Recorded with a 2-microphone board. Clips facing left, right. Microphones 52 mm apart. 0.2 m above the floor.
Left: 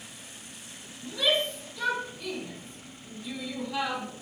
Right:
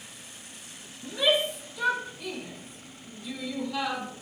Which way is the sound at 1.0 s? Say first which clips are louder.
Right 2 dB; 15° right (ahead or behind).